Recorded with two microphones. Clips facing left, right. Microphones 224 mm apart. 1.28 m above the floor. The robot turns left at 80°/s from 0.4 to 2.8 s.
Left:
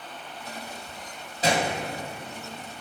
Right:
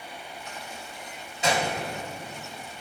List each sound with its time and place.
1.4 s a gunshot: 40° left (ahead or behind), 2.0 m; by 1.8 s 15° left (ahead or behind), 2.0 m